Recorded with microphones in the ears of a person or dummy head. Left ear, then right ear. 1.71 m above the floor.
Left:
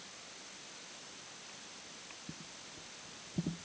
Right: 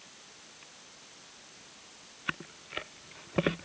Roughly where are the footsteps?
No footsteps in this recording.